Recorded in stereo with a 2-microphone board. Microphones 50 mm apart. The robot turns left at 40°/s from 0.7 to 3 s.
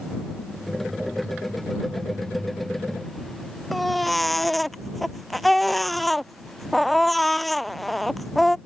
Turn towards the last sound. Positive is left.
turn(degrees=0)  # may be behind; listen again after turning